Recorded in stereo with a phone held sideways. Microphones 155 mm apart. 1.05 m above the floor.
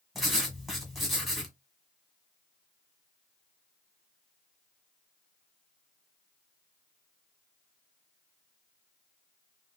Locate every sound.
0.1 s writing: centre (ahead or behind), 1.6 m